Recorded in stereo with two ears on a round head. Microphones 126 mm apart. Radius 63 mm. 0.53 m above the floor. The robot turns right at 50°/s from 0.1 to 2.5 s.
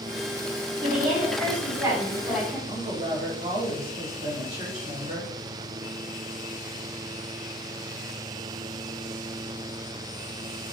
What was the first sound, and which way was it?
A woman speaking, 85° right.